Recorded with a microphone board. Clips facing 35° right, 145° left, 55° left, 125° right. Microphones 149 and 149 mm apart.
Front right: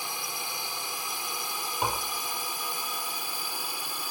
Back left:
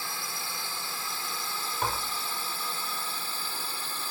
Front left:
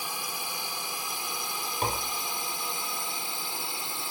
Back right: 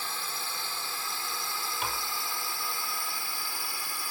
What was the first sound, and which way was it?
A drone, 5° left.